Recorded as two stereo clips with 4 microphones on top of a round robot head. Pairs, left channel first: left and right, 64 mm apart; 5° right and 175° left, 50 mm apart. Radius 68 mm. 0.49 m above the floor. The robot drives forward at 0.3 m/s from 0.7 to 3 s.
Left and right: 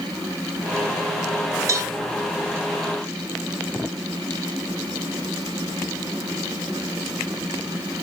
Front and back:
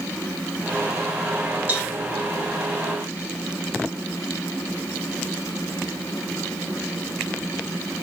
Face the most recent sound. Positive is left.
turn(degrees=-130)